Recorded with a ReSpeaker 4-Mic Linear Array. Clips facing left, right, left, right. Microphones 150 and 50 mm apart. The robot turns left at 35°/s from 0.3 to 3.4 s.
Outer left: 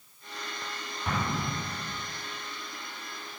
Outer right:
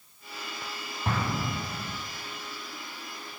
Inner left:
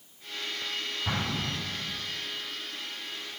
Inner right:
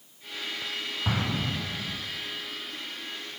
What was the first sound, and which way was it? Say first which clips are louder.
An explosion: outer right 1 dB, inner right 3 dB; 30° right (ahead or behind).